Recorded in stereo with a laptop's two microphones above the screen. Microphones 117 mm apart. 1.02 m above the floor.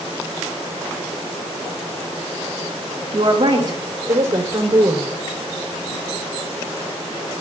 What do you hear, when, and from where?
3.1 s a woman speaking: 50° right (ahead or behind), 2.5 m; by 5.1 s 20° right (ahead or behind), 4 m